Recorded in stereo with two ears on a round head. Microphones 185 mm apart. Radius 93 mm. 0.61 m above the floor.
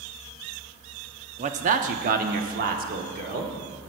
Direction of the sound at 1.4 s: 35° right (ahead or behind).